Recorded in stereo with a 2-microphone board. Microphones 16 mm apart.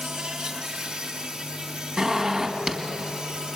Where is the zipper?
35° right (ahead or behind), 2.5 m.